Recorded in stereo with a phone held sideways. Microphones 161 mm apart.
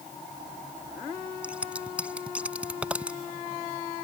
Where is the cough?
I don't hear a cough.